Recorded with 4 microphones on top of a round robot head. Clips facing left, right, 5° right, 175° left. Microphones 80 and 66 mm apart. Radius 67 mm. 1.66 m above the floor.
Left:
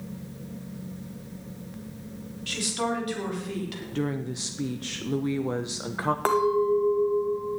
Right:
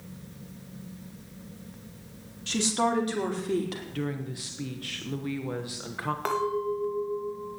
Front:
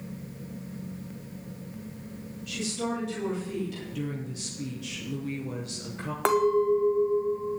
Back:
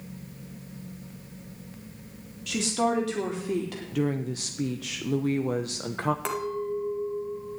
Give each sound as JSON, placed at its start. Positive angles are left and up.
{"t": 2.5, "sound": "a woman speaking", "azimuth_deg": -155, "distance_m": 4.0}
{"t": 3.9, "sound": "a woman speaking", "azimuth_deg": 150, "distance_m": 1.0}
{"t": 6.2, "sound": "a clink", "azimuth_deg": 25, "distance_m": 1.6}